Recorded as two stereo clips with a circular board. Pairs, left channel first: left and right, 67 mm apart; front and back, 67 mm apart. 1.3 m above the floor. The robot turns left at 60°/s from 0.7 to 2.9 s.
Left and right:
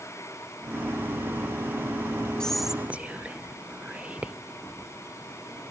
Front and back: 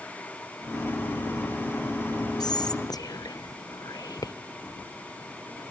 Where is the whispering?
10° left, 0.7 m; by 4.3 s 20° right, 0.7 m.